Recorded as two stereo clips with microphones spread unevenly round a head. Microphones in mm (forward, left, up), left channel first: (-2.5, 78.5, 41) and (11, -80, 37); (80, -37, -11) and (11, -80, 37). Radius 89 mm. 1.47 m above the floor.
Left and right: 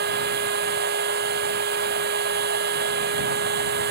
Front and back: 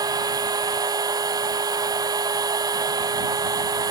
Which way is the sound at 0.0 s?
115° right.